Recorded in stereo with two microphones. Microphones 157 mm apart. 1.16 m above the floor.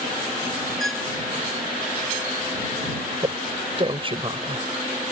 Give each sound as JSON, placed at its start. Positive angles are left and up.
{"t": 0.8, "sound": "a violin", "side_deg": 0}
{"t": 3.2, "sound": "a man speaking", "side_deg": -35}